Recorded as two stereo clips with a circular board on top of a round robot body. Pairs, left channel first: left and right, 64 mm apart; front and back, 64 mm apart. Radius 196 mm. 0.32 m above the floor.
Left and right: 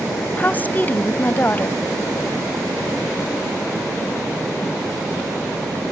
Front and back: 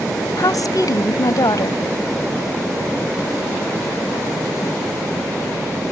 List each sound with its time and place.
0.4 s a woman speaking: 25° left